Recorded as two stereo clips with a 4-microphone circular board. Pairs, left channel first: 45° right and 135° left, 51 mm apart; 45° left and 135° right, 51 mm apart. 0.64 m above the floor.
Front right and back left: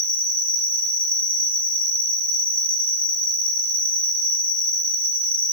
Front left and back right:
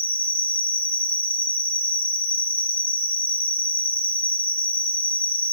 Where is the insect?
175° left, 3.5 m.